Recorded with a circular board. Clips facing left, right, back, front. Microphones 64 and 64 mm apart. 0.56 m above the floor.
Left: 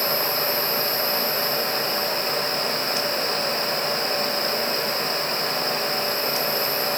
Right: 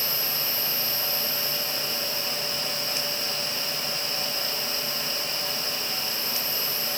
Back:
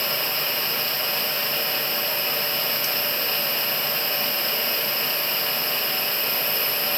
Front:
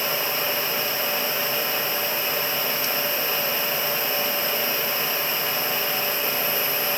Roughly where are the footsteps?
No footsteps in this recording.